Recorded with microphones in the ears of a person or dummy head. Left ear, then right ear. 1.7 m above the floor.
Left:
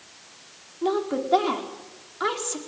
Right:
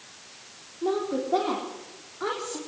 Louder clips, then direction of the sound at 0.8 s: Left 2 dB; 65° left (ahead or behind).